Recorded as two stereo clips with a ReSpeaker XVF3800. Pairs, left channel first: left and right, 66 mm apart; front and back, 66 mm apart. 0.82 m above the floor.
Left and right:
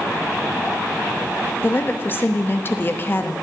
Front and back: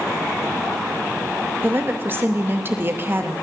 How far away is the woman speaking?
About 0.9 m.